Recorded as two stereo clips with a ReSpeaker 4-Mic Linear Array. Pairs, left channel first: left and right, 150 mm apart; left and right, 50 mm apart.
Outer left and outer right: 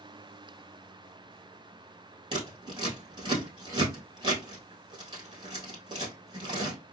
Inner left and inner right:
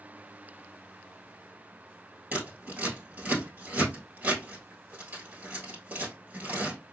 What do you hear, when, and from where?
2.3 s scissors: 30° right (ahead or behind), 1.5 m